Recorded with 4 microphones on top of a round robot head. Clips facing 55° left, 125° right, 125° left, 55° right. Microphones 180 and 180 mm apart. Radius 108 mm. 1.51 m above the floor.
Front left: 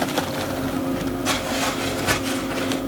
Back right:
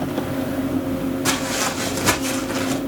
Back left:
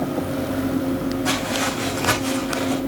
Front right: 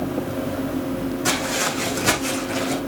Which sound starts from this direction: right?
Footsteps, at 1.2 s.